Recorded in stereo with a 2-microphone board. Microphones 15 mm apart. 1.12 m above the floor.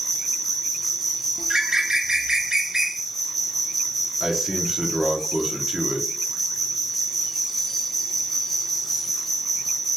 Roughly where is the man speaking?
Right.